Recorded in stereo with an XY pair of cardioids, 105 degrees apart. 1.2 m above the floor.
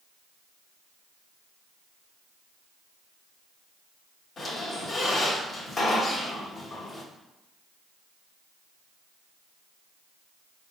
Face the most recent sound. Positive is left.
turn(degrees=50)